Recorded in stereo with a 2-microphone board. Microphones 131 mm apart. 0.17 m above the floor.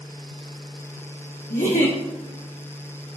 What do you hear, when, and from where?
1.5 s a giggle: 85° left, 2.5 m